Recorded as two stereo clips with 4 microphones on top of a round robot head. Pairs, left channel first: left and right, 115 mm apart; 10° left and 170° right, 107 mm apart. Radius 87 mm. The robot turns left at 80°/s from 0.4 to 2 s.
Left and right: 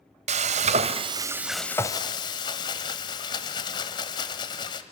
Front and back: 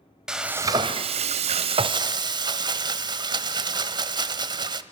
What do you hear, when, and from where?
0.3 s frying: 90° right, 1.1 m; by 4.8 s 145° left, 1.1 m